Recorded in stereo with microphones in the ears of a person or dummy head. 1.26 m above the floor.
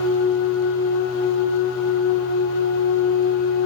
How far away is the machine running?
About 5.5 m.